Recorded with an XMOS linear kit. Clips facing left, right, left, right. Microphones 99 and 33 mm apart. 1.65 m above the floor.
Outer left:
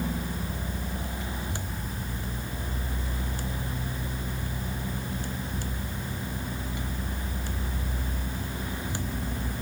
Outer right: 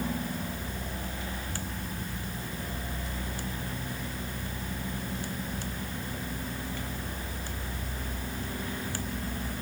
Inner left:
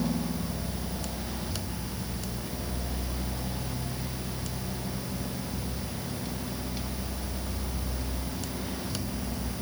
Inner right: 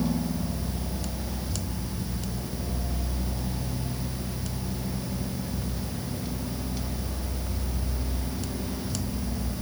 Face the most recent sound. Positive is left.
No sound to turn to.